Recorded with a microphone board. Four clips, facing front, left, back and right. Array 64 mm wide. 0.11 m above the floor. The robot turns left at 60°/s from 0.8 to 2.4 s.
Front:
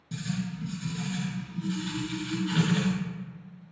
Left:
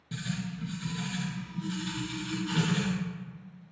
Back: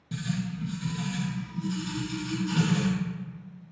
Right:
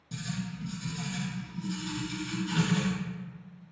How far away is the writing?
About 0.8 m.